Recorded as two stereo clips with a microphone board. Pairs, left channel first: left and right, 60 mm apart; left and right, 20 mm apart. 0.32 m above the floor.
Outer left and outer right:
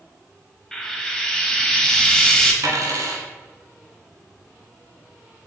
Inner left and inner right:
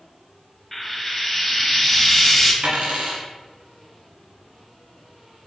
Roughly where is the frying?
Centre.